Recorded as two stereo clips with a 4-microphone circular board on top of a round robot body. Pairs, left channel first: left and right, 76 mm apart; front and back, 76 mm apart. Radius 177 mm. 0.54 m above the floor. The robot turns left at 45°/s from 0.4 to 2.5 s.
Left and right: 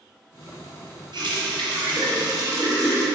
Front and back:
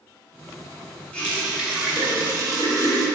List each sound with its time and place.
1.1 s a running tap: 75° right, 1.1 m; by 3.0 s 140° right, 1.1 m